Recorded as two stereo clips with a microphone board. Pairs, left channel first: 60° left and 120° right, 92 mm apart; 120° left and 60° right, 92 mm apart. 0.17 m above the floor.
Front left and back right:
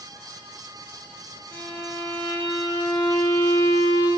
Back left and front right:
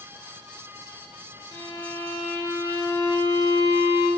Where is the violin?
100° left, 1.7 m.